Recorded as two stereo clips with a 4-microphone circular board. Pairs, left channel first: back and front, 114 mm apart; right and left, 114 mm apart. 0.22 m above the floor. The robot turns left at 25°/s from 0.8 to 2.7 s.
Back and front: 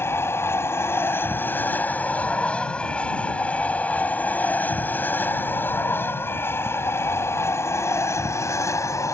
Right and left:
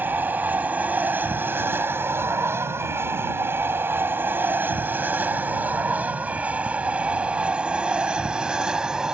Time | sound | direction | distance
0.0 | an aircraft | 140° left | ?